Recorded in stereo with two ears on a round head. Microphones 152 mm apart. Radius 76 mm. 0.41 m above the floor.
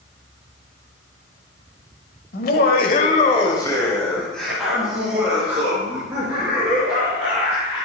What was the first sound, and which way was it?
Laughter, 60° left (ahead or behind).